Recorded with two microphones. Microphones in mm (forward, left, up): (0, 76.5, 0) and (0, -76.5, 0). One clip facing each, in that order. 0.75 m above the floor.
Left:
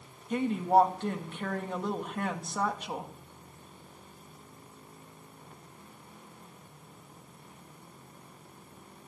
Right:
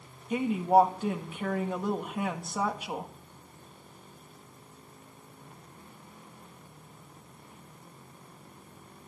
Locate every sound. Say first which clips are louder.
0.3 s a woman speaking: right 2 dB; 5° right (ahead or behind), 1.1 m